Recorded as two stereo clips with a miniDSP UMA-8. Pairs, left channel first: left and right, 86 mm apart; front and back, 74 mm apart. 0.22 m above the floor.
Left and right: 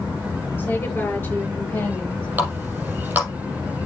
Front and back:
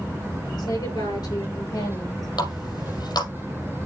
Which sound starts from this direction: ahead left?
A woman speaking, at 0.6 s.